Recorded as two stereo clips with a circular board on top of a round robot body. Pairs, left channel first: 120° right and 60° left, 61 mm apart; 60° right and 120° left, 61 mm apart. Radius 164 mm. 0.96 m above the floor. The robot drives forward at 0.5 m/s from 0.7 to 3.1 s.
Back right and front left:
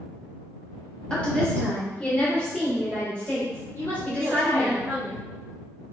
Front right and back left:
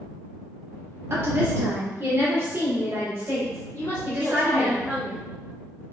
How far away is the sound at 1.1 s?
About 1.5 m.